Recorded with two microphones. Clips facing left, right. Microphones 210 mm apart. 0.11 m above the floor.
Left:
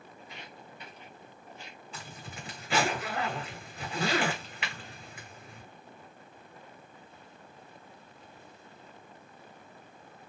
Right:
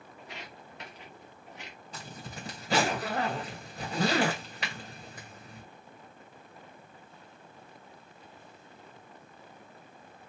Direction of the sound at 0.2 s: 75° right (ahead or behind).